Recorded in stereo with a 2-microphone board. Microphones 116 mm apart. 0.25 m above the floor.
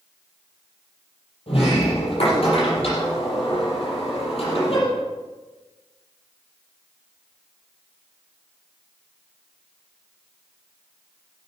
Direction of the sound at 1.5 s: 55° left (ahead or behind).